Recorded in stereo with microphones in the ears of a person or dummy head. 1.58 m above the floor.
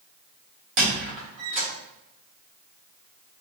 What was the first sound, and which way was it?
A squeak, 70° right (ahead or behind).